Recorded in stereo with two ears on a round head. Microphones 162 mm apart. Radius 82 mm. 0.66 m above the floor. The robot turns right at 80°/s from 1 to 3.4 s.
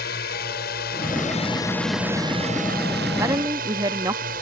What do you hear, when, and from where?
0.0 s a drone: 105° left; by 4.4 s 60° right
3.2 s a woman speaking: 15° right (ahead or behind); by 4.3 s 20° right (ahead or behind)